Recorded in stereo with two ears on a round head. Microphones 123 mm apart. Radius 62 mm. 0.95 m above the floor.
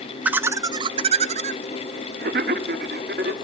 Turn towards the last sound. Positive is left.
turn(degrees=-80)